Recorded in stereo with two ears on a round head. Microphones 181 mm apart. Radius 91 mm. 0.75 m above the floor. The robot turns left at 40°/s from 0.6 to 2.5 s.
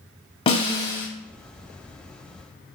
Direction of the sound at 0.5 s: 25° left (ahead or behind).